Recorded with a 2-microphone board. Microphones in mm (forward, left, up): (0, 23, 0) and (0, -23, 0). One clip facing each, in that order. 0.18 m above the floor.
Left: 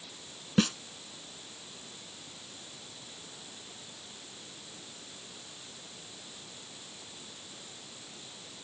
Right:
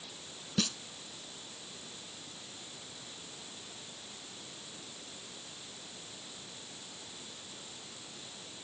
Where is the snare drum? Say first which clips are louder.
Left 7 dB; 35° left (ahead or behind).